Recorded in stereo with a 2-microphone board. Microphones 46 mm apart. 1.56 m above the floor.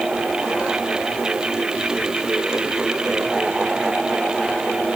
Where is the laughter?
No laughter in this recording.